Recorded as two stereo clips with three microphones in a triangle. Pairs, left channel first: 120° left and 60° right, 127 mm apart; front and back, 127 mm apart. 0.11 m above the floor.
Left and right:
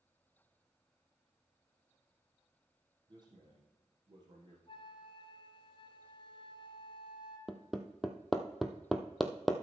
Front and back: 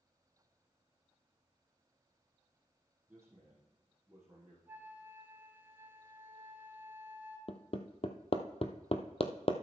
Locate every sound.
3.1 s a man speaking: 105° right, 3.5 m
4.7 s a flute: 115° left, 2.0 m
7.5 s hammering: 30° left, 1.0 m